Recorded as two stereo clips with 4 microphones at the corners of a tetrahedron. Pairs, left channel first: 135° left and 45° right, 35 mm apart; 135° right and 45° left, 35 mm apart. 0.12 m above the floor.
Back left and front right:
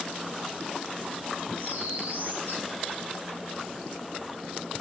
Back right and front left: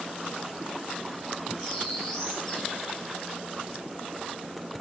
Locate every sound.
1.6 s a bird: 50° right, 5.5 m